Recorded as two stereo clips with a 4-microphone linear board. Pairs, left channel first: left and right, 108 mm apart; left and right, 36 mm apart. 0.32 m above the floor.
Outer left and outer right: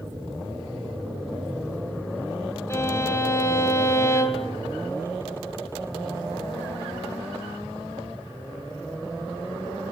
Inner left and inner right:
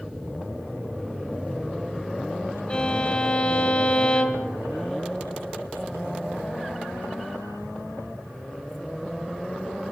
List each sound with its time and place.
2.7 s a violin: 25° left (ahead or behind), 1.8 m